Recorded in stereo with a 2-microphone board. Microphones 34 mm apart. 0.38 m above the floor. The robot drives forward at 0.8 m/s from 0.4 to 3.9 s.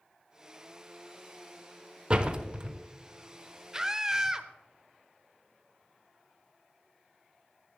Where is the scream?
15° right (ahead or behind), 1.0 m.